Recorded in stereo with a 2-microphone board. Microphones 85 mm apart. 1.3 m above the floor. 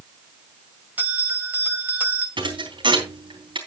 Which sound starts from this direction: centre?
A bell, at 1.0 s.